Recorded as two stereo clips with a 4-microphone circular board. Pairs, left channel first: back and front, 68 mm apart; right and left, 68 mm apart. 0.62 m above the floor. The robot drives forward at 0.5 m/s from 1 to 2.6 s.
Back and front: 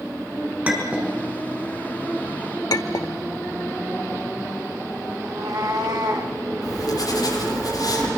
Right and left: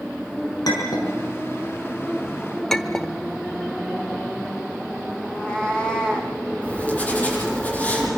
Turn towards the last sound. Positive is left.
turn(degrees=-160)